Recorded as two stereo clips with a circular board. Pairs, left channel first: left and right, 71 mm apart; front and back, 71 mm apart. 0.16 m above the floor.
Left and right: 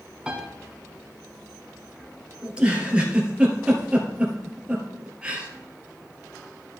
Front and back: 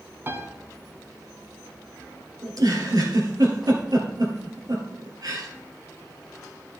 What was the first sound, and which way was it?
A piano, 160° right.